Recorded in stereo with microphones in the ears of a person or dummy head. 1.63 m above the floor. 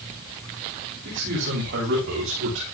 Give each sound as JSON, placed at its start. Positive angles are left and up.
{"t": 1.1, "sound": "a man speaking", "side_deg": -50, "distance_m": 10.0}